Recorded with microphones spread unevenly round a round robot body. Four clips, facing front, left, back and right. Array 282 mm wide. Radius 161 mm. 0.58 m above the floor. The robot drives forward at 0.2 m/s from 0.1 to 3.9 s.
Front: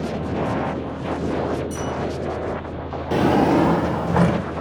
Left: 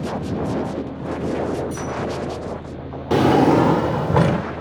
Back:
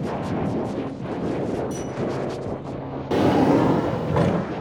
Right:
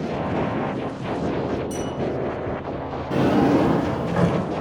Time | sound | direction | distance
1.7 | a bell | 115° right | 1.8 m
3.1 | a drawer | 85° left | 0.8 m